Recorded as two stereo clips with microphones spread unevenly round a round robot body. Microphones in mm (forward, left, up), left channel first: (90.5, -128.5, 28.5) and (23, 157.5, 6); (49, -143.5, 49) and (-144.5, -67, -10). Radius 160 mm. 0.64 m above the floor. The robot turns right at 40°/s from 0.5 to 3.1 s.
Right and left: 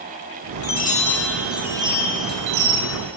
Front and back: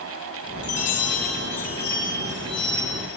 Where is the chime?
20° right, 1.6 m; by 3.0 s 70° left, 1.6 m.